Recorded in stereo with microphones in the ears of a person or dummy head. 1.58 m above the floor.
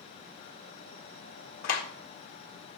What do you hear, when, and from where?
1.6 s a clap: 60° left (ahead or behind), 1.6 m